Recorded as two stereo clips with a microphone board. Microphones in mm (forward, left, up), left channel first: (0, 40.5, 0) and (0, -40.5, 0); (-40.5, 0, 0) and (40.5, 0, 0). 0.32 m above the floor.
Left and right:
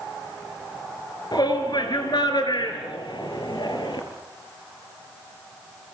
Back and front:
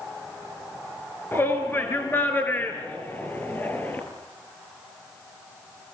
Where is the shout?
120° left, 6 m; by 4.0 s 115° left, 7.5 m.